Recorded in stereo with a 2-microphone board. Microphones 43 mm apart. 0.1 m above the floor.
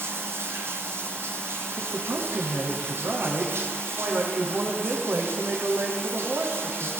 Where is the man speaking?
60° right (ahead or behind), 6.5 m.